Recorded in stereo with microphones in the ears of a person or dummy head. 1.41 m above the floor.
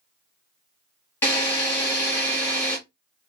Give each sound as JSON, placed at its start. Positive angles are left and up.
{"t": 1.2, "sound": "a drill", "side_deg": 15, "distance_m": 1.6}